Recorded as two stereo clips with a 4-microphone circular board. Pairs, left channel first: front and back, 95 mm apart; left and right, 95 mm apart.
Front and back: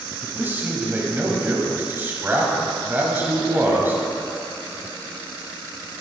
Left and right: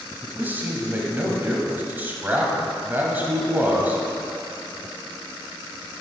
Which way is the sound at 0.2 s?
140° right.